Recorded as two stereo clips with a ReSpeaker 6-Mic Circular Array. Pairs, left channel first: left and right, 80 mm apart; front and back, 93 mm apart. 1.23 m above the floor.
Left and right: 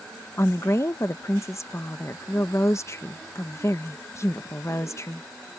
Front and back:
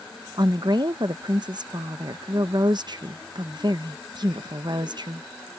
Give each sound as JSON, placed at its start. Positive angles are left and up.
{"t": 0.4, "sound": "a woman speaking", "azimuth_deg": 140}